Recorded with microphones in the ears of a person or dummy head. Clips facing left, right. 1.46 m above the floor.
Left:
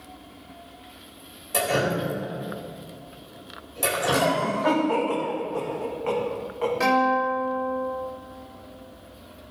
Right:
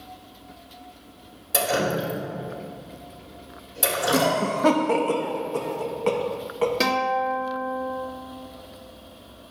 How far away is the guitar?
About 2 m.